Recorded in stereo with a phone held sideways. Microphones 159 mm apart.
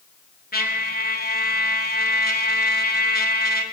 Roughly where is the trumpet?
Left.